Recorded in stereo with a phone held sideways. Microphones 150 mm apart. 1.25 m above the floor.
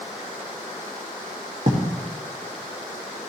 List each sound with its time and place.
1.7 s writing: 55° right (ahead or behind), 1.9 m